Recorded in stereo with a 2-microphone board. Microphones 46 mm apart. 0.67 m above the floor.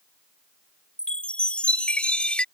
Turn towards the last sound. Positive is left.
turn(degrees=25)  # may be behind; listen again after turning